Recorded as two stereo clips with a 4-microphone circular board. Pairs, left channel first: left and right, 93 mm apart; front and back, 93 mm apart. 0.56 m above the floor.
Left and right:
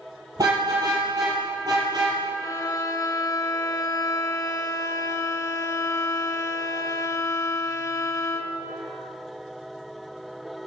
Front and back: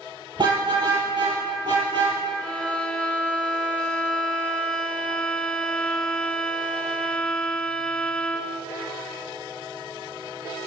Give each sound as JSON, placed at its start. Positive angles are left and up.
{"t": 0.4, "sound": "a car horn", "azimuth_deg": -140, "distance_m": 6.5}
{"t": 2.4, "sound": "a violin", "azimuth_deg": 75, "distance_m": 1.3}